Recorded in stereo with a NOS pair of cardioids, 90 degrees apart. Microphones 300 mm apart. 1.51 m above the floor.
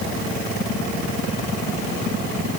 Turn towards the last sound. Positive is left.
No sound to turn to.